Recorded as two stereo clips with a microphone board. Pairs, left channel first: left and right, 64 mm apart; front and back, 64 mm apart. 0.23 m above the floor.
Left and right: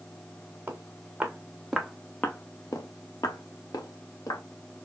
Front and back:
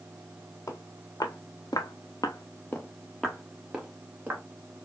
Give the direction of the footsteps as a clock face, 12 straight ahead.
1 o'clock.